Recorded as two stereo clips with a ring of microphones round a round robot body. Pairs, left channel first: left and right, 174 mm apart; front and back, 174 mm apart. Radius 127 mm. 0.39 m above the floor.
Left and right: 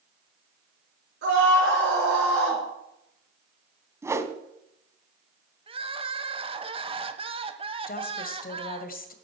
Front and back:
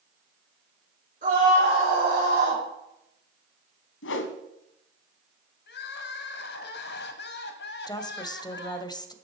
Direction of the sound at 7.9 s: 65° left.